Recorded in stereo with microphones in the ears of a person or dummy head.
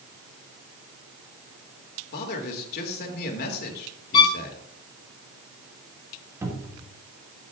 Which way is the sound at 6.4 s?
15° right (ahead or behind).